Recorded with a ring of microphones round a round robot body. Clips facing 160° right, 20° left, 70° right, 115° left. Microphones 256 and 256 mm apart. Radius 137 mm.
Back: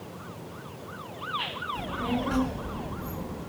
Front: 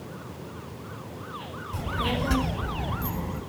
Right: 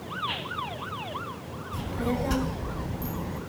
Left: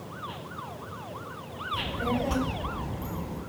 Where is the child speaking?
10° right, 2.5 m; by 3.4 s 5° left, 4 m.